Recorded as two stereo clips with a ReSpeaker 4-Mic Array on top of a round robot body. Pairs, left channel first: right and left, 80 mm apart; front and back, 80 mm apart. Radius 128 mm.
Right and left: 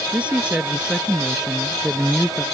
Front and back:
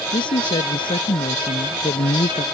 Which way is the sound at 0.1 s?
15° left.